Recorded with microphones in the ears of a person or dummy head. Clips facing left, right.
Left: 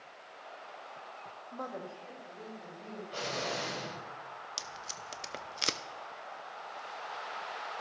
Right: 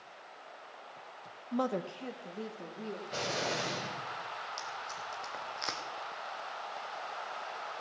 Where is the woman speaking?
70° right (ahead or behind), 0.6 m; by 3.0 s 65° right (ahead or behind), 3 m.